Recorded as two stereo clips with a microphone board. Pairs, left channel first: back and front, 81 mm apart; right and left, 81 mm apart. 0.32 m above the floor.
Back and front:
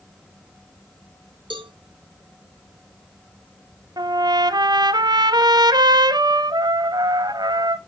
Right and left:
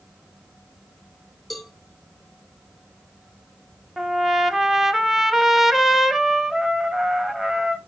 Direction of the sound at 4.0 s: 5° left.